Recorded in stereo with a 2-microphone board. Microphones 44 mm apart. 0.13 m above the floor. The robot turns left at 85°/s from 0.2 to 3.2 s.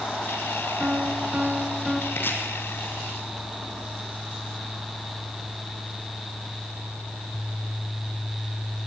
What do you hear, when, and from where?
0.8 s a piano: 85° right, 1.8 m; by 2.0 s 170° left, 1.8 m
2.1 s chopping: 65° left (ahead or behind), 4 m; by 2.4 s 45° left (ahead or behind), 4 m